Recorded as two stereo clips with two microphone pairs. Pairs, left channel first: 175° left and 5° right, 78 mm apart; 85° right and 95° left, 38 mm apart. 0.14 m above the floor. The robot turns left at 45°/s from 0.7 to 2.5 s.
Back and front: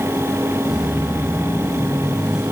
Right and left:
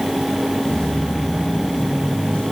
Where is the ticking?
No ticking in this recording.